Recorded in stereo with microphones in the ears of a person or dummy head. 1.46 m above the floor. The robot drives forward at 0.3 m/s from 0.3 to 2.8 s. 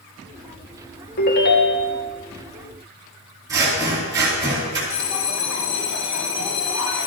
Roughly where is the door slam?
No door slam in this recording.